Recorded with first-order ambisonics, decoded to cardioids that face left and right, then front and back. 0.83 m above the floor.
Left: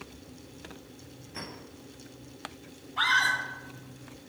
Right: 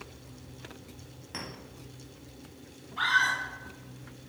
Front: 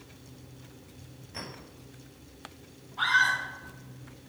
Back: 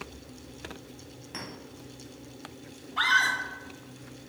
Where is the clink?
130° right, 3.5 m.